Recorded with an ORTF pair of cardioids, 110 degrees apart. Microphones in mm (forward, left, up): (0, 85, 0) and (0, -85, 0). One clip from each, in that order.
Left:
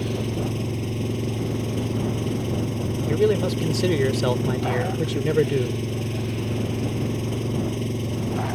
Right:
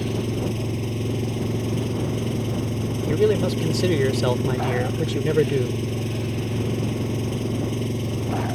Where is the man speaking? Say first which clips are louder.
Right 1 dB; 5° right.